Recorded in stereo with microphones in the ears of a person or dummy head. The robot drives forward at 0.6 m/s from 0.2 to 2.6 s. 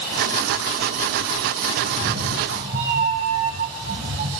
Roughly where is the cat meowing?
Right.